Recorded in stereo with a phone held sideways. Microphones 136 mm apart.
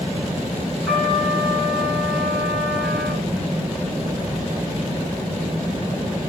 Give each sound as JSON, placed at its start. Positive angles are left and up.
{"t": 0.9, "sound": "a trumpet", "side_deg": 0, "distance_m": 8.0}